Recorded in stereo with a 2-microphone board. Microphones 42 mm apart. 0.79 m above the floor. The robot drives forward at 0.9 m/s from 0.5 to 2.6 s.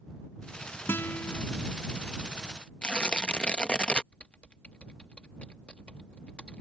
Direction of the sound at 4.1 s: 30° left (ahead or behind).